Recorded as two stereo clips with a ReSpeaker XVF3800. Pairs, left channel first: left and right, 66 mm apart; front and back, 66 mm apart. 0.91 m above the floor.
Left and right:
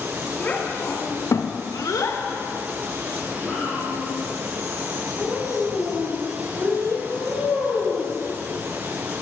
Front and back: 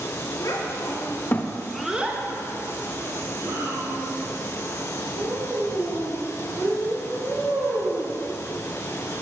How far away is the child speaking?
About 1.3 m.